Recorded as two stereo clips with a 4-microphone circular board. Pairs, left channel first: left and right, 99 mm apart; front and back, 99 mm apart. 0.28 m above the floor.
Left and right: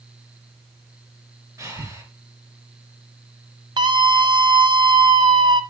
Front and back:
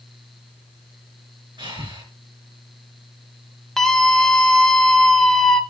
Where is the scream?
85° right, 1.5 m.